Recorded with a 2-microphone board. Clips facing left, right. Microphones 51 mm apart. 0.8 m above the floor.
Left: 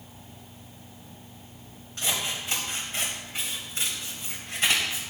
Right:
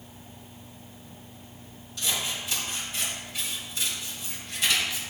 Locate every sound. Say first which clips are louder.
2.0 s scissors: left 1 dB; 40° left (ahead or behind), 1.9 m